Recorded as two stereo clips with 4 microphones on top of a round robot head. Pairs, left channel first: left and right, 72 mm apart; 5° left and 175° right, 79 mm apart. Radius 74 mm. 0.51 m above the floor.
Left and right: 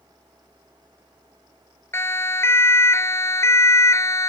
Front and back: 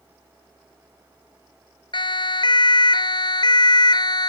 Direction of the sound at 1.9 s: 35° left.